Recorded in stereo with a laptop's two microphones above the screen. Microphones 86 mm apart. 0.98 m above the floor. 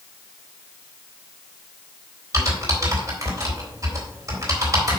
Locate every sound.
2.3 s typing on a keyboard: 35° right (ahead or behind), 3.5 m